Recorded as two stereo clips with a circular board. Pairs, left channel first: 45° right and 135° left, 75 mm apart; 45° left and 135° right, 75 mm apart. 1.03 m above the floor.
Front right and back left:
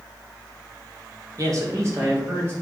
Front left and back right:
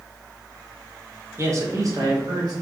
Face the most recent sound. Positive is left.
turn(degrees=-170)